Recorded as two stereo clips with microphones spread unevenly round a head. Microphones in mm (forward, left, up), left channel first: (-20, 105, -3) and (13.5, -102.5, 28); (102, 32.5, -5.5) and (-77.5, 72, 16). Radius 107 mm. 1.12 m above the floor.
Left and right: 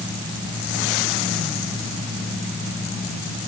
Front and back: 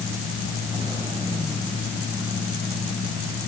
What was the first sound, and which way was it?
Only background noise.